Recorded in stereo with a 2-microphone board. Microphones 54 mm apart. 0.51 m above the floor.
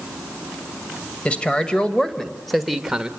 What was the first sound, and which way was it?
A man speaking, 20° left (ahead or behind).